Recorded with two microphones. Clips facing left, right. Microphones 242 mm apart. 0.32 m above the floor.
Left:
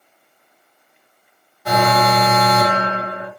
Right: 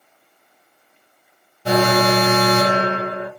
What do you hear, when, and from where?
1.6 s an alarm: 30° right (ahead or behind), 0.8 m